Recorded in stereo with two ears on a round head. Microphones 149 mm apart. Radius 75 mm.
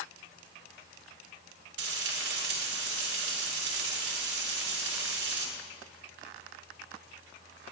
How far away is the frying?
About 2.5 m.